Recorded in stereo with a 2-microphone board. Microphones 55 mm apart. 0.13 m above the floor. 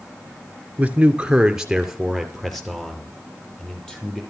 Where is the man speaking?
25° right (ahead or behind), 1.8 m; by 4.2 s 15° left (ahead or behind), 4.5 m.